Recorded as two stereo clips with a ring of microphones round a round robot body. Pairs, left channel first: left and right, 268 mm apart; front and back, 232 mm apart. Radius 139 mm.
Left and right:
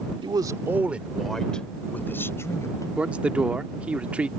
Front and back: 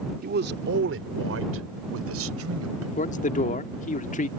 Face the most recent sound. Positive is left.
turn(degrees=-10)